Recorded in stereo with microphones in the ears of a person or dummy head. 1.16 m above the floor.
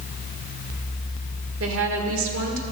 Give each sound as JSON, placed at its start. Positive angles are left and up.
{"t": 1.6, "sound": "a woman speaking", "side_deg": -65, "distance_m": 1.6}